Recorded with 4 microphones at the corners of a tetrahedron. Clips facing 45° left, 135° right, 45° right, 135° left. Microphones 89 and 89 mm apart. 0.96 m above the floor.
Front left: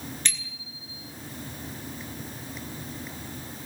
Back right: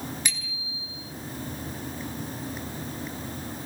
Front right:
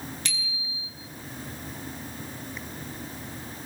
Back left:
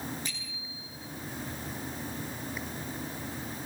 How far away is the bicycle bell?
About 9.5 m.